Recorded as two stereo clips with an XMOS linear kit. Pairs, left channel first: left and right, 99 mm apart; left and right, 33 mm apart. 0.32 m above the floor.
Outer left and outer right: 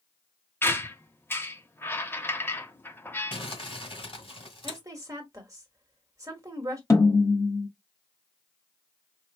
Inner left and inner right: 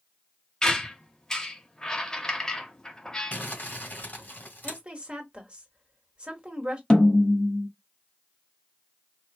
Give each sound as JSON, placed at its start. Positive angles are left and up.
{"t": 0.6, "sound": "a squeak", "side_deg": 20, "distance_m": 0.6}
{"t": 3.3, "sound": "crumpling", "side_deg": 55, "distance_m": 1.9}
{"t": 4.6, "sound": "a woman speaking", "side_deg": -30, "distance_m": 1.5}
{"t": 6.9, "sound": "a snare drum", "side_deg": 25, "distance_m": 1.0}